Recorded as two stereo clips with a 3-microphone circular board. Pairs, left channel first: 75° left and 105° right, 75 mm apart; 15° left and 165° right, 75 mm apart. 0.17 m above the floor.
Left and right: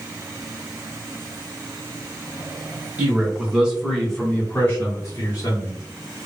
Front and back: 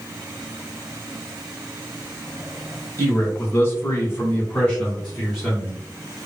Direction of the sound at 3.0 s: 40° right.